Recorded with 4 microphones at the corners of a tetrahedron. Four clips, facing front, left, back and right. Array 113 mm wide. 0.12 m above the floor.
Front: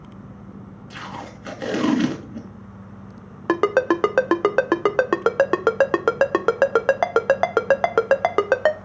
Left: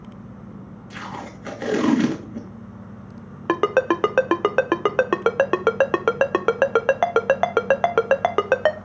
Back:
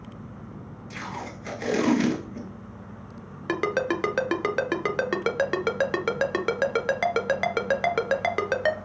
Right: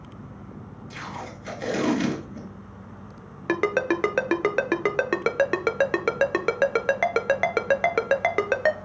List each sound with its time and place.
0.9 s tape being pulled: 60° left, 2 m
3.5 s a ringtone: 30° left, 0.5 m